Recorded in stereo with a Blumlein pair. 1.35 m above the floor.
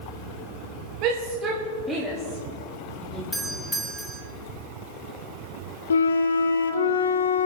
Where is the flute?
70° left, 0.8 m.